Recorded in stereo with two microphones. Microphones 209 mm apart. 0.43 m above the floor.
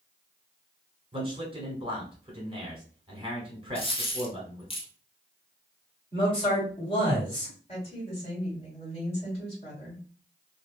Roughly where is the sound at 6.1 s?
Left.